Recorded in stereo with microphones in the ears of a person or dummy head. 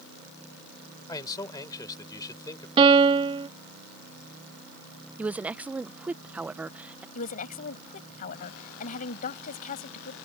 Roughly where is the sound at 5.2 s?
Centre.